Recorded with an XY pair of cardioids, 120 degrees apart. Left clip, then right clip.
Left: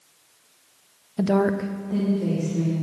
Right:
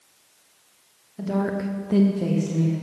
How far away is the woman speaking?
About 0.7 m.